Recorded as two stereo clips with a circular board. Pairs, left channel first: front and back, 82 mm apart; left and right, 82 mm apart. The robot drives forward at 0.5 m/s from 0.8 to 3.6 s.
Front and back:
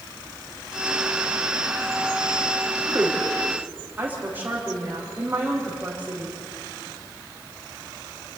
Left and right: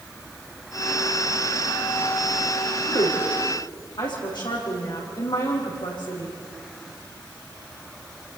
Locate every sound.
2.9 s a woman speaking: 110° left, 7 m